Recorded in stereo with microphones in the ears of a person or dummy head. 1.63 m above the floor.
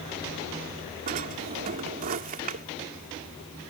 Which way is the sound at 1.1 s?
45° right (ahead or behind).